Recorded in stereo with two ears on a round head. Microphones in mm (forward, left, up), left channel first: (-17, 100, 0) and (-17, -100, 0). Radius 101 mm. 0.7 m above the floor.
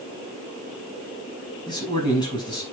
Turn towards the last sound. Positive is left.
turn(degrees=20)  # may be behind; listen again after turning